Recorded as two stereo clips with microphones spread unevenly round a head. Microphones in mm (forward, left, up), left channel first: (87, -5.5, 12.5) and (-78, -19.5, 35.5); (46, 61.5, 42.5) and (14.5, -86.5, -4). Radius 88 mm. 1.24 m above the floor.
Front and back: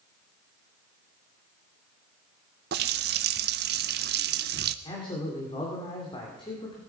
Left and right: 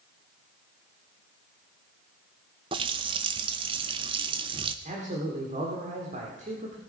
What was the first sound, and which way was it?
A running tap, 175° right.